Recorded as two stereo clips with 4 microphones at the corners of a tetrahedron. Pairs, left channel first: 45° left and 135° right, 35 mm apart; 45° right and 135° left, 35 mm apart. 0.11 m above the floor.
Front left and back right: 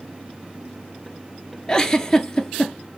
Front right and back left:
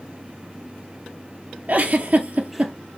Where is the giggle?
110° left, 0.5 m.